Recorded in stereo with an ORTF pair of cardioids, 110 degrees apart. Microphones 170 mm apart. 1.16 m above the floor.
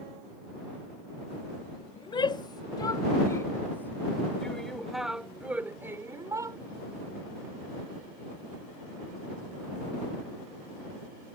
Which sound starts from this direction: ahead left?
A shout, at 2.0 s.